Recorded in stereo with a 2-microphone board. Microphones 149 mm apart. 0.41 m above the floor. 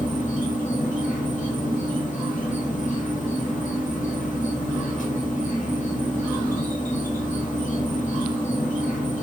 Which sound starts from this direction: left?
An insect, at 0.0 s.